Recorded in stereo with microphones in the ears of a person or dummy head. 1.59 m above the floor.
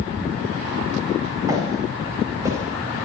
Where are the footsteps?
25° right (ahead or behind), 5.5 m; by 2.6 s 20° right (ahead or behind), 6 m.